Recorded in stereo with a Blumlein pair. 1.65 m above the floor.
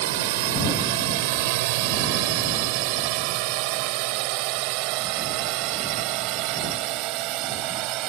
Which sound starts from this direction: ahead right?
A drone, at 0.0 s.